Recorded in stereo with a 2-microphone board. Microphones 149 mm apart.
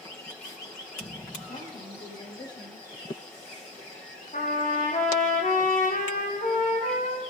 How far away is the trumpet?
About 3.5 m.